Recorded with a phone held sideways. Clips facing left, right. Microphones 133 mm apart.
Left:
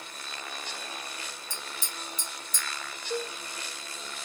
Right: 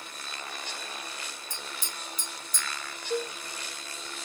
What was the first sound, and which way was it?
Tapping, 25° left (ahead or behind).